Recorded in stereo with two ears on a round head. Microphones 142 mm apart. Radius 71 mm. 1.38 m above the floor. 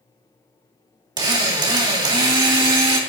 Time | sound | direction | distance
1.2 | a drill | 30° right (ahead or behind) | 2.5 m